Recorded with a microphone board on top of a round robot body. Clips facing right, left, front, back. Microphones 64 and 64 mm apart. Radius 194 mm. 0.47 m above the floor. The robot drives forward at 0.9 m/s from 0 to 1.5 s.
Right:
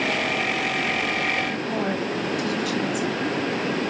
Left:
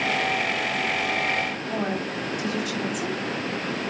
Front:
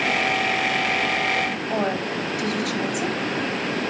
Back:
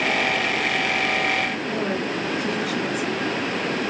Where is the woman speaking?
15° left, 5 m.